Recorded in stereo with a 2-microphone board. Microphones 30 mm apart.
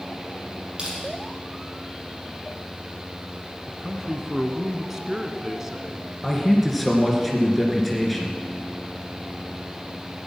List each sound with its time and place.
0.8 s crushing: 30° right (ahead or behind), 4.5 m
3.7 s a man speaking: 15° right (ahead or behind), 1.4 m
6.2 s a man speaking: centre (ahead or behind), 2.5 m